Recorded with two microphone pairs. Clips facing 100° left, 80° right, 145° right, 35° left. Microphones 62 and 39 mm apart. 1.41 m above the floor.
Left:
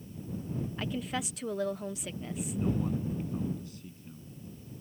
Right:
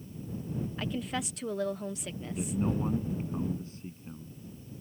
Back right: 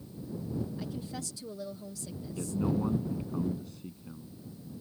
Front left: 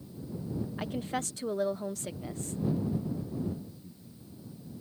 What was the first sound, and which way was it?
A woman speaking, 10° left.